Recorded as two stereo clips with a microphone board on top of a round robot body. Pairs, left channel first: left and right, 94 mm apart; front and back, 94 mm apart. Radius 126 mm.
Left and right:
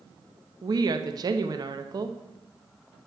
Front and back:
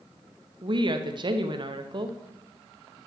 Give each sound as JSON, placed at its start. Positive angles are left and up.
{"t": 0.6, "sound": "a woman speaking", "azimuth_deg": -140, "distance_m": 0.9}